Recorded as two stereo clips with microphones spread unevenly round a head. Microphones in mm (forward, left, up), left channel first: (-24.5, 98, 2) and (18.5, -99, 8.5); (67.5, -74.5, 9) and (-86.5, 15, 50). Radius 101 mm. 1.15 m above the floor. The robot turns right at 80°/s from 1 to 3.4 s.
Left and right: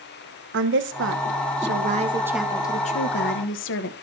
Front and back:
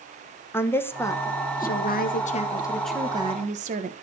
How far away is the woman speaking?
About 1.0 m.